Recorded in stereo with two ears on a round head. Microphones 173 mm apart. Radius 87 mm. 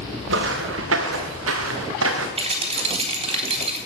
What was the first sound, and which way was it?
Footsteps, 75° right (ahead or behind).